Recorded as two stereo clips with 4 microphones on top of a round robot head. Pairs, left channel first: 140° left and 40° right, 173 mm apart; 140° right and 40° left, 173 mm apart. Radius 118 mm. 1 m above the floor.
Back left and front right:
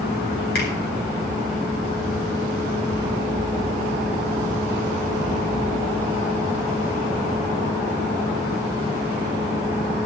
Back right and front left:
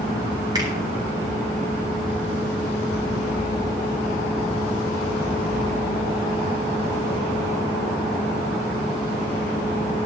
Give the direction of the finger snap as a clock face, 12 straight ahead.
8 o'clock.